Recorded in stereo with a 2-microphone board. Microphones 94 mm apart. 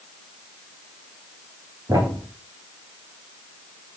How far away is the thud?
About 6.5 m.